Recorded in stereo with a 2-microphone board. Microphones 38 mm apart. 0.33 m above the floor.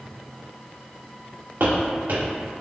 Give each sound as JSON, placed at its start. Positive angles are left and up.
{"t": 1.6, "sound": "footsteps", "side_deg": -80, "distance_m": 2.0}